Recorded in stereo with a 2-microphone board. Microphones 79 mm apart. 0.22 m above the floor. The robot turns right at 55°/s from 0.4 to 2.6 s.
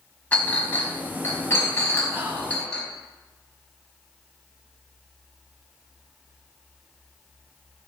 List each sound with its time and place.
0.3 s a clink: 20° left (ahead or behind), 1.0 m; by 2.8 s 10° left (ahead or behind), 1.0 m
2.1 s whispering: 20° right (ahead or behind), 1.1 m; by 2.6 s 25° right (ahead or behind), 1.1 m